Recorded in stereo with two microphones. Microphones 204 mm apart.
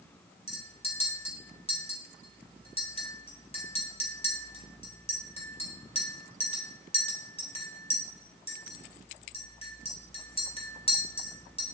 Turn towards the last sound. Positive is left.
turn(degrees=30)  # may be behind; listen again after turning